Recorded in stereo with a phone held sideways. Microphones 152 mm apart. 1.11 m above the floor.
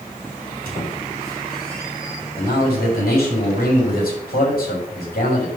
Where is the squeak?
80° left, 3.5 m.